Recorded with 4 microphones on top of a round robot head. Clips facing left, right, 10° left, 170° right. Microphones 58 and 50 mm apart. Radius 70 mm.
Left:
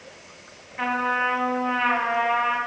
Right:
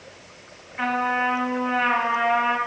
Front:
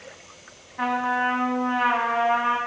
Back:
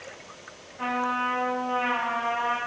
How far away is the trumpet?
About 0.9 m.